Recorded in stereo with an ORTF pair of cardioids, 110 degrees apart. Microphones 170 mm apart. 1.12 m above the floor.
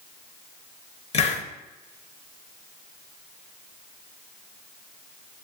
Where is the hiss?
40° left, 0.8 m.